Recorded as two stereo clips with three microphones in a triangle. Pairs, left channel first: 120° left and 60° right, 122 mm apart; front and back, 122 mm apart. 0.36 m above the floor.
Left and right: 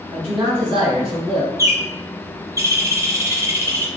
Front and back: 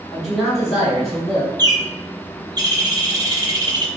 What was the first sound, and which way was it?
A man speaking, 95° right.